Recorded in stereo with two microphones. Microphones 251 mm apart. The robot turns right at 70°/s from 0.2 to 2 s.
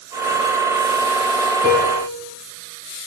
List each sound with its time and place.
1.6 s a piano: 45° right (ahead or behind), 3 m; by 2.2 s 25° right (ahead or behind), 3 m